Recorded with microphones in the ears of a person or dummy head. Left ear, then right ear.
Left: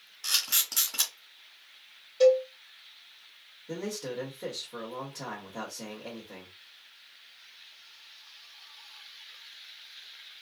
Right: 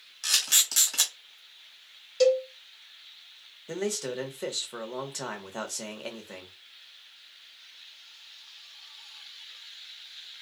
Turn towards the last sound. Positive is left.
turn(degrees=-75)  # may be behind; listen again after turning